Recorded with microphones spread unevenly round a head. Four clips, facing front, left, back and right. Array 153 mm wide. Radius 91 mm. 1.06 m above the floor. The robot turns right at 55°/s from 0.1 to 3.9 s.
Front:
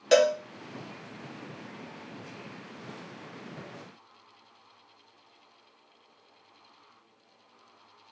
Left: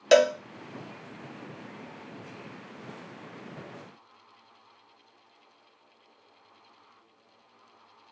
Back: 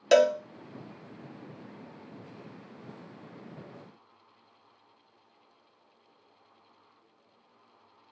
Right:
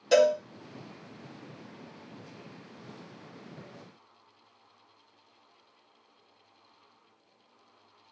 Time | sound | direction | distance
0.1 | a cowbell | 125° left | 0.5 m